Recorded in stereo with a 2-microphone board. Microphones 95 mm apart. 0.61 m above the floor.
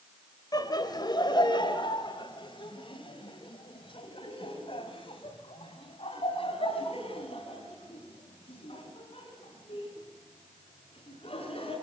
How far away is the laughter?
About 3 m.